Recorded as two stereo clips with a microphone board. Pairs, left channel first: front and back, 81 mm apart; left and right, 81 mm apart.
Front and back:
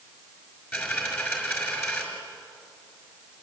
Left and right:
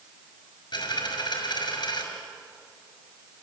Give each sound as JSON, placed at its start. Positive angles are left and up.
{"t": 0.7, "sound": "a dropped coin", "azimuth_deg": 65, "distance_m": 5.5}